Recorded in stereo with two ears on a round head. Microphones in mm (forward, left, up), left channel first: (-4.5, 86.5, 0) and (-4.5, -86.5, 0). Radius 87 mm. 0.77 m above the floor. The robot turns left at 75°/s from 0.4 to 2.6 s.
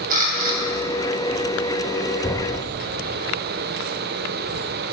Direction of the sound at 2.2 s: 20° left (ahead or behind).